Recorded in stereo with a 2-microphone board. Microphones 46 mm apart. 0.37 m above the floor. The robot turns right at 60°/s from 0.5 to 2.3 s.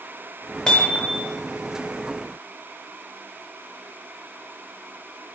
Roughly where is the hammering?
Ahead.